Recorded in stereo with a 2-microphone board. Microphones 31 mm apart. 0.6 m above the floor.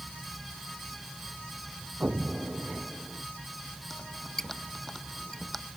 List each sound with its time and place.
2.0 s an explosion: 60° right (ahead or behind)
3.9 s a squeak: 10° left (ahead or behind)